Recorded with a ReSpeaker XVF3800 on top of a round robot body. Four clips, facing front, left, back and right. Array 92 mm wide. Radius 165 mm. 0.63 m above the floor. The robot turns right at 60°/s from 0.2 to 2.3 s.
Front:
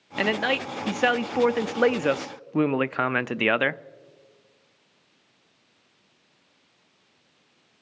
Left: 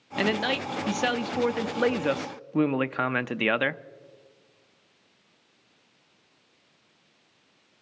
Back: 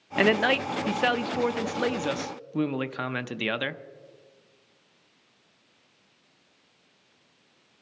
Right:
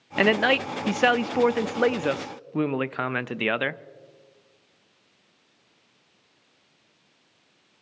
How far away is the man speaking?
About 0.5 m.